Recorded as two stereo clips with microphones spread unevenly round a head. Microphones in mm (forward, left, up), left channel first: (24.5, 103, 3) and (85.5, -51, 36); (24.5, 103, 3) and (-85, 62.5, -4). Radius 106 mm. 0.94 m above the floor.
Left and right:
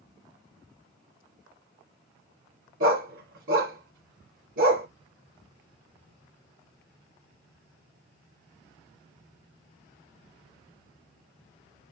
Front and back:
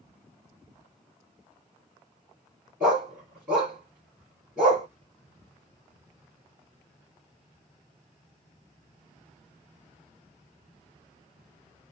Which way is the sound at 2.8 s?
80° right.